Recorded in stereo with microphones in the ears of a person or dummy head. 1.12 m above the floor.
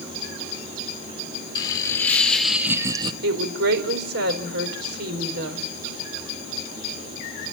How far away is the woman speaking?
About 5 m.